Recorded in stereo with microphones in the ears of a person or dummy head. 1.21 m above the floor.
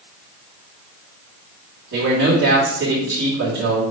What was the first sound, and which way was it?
A man speaking, 65° right (ahead or behind).